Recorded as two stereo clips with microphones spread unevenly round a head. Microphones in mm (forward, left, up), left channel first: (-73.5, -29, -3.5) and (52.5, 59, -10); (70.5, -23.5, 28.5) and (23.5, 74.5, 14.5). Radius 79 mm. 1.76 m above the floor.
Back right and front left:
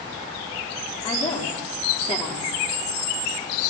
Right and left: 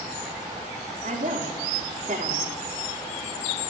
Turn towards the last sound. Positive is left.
turn(degrees=160)